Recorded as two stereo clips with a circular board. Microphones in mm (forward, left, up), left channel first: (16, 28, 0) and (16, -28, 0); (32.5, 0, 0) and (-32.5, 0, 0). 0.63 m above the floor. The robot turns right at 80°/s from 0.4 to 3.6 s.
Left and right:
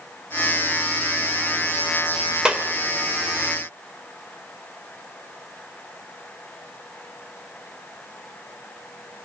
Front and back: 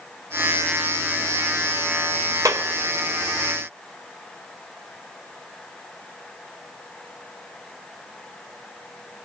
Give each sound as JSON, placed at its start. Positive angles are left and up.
{"t": 2.5, "sound": "a clap", "azimuth_deg": -165, "distance_m": 2.0}